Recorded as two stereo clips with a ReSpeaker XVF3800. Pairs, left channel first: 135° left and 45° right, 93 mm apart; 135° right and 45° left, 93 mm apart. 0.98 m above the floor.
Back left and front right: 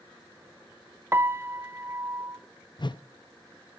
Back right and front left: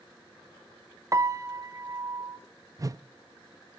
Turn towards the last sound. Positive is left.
turn(degrees=100)